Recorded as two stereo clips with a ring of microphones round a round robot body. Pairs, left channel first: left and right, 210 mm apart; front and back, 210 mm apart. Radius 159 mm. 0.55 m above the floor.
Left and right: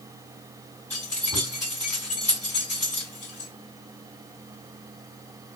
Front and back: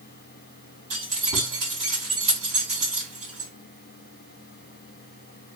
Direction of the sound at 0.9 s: 175° left.